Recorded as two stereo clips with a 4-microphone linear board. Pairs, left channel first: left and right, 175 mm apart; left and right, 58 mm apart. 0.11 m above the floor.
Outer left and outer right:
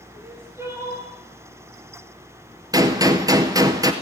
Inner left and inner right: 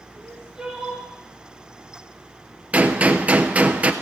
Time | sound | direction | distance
0.1 | crying | 15° right (ahead or behind) | 3.5 m
2.7 | a gunshot | 20° right (ahead or behind) | 1.0 m